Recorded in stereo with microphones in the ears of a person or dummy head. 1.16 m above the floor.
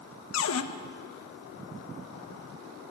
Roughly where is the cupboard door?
Left.